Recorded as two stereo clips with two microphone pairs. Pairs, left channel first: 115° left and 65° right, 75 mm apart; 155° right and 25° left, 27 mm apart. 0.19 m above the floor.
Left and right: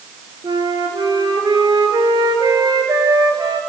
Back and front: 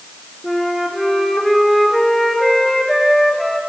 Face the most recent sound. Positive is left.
turn(degrees=-70)